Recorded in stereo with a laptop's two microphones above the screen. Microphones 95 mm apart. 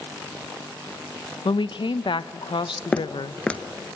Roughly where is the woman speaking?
Left.